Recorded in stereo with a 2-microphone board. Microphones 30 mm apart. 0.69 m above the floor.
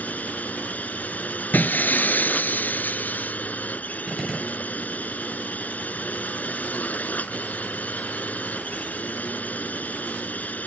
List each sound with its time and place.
0.0 s a drone: 65° left (ahead or behind)
1.5 s breaking glass: 80° left
4.1 s a gunshot: centre (ahead or behind)